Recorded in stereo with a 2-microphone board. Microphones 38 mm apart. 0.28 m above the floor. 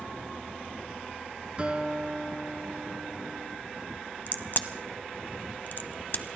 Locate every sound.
1.6 s a guitar: 30° right (ahead or behind), 1.5 m
4.3 s a crack: 50° left (ahead or behind), 0.8 m